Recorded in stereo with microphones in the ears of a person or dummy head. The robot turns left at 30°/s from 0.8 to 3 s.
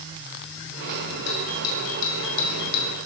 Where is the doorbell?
105° left, 6 m; by 3.0 s 55° left, 6 m.